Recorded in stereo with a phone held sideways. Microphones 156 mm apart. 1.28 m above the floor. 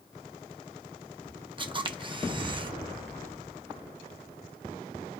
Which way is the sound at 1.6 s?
30° right (ahead or behind).